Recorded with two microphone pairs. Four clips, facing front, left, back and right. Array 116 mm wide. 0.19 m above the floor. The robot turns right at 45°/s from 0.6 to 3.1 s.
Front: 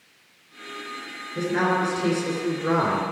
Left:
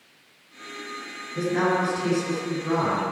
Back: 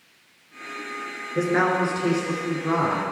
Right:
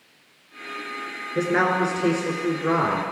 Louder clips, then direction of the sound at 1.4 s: Right 2 dB, back 2 dB; 120° right.